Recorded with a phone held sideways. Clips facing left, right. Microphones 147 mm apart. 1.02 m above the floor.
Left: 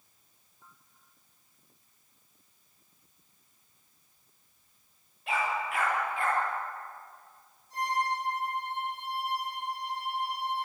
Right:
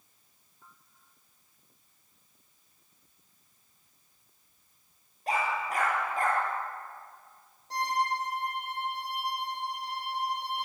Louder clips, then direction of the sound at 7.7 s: Right 1 dB; 75° right (ahead or behind).